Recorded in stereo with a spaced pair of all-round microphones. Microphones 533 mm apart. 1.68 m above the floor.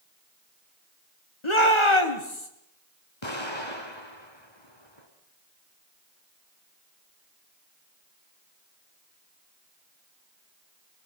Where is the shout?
60° left (ahead or behind), 1.8 m.